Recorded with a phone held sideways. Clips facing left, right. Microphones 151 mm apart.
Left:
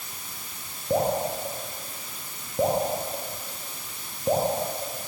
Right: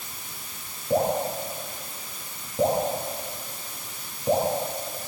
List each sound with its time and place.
0.9 s dripping: 10° left (ahead or behind), 8 m